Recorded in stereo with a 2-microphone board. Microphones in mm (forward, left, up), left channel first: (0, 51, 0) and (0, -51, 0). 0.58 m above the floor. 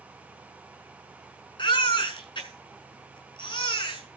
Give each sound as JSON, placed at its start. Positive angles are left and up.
{"t": 1.6, "sound": "a baby crying", "side_deg": 50, "distance_m": 6.0}